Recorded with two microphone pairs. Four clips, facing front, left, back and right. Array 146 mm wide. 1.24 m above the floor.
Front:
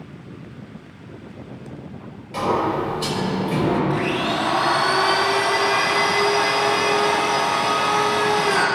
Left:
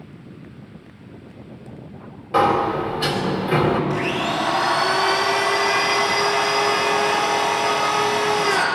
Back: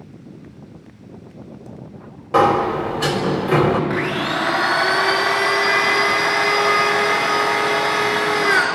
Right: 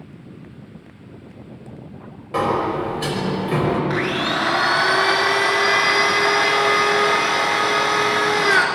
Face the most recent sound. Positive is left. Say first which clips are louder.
# right 1 dB, even
turn(degrees=-115)